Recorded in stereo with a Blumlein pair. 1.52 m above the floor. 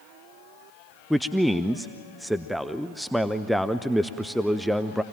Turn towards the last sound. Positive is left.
turn(degrees=0)